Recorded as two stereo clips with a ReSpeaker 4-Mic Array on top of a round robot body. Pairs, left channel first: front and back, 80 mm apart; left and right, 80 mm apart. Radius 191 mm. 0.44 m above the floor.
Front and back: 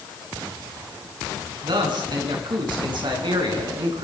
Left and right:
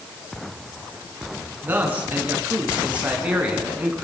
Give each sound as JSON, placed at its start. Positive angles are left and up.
{"t": 1.6, "sound": "a man speaking", "azimuth_deg": -155, "distance_m": 6.5}